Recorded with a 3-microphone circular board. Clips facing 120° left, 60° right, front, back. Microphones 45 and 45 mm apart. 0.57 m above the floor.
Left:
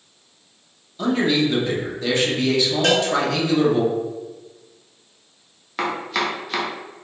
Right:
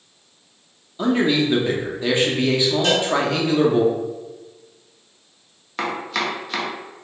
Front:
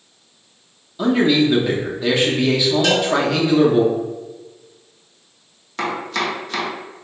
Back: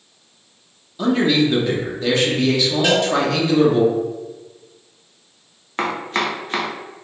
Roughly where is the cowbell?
Left.